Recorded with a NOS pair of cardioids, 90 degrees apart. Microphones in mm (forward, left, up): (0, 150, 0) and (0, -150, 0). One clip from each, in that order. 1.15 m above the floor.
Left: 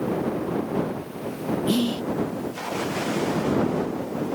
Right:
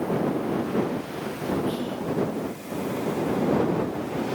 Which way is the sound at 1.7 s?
60° left.